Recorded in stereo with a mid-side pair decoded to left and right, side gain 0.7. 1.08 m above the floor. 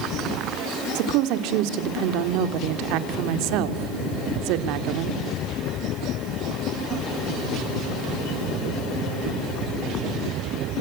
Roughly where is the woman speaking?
Ahead right.